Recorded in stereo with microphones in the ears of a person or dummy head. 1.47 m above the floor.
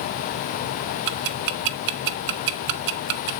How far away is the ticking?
About 1.3 m.